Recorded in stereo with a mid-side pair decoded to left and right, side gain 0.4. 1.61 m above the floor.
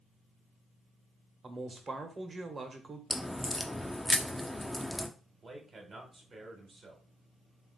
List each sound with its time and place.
1.4 s a man speaking: 35° right, 1.2 m
3.1 s a crack: 5° left, 0.6 m
5.4 s a man speaking: 45° right, 1.4 m